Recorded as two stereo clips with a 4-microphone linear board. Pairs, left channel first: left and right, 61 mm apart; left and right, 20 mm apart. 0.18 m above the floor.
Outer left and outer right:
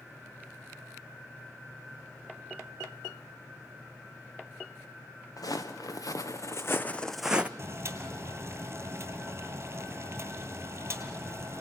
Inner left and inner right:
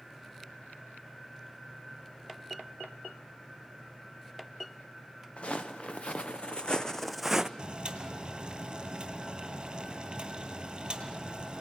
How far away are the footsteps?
About 1.8 m.